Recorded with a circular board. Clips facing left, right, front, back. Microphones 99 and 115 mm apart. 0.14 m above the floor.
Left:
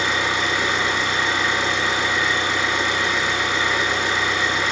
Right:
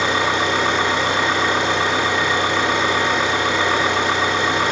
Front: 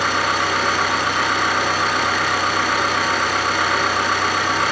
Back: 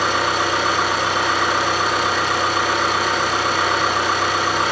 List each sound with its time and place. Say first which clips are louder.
0.0 s an engine running: right 4 dB, back 1 dB; 115° right, 7 m